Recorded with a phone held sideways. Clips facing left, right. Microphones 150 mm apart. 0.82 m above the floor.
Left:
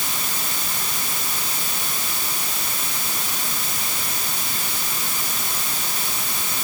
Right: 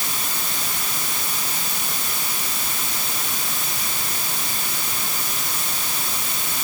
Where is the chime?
I don't hear a chime.